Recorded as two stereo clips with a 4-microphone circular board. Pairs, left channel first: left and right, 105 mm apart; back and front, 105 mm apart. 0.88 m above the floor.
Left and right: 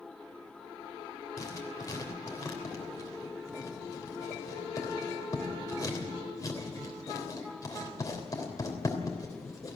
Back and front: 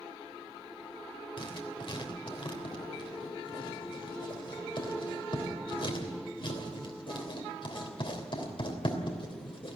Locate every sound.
1.4 s writing: 145° left, 3 m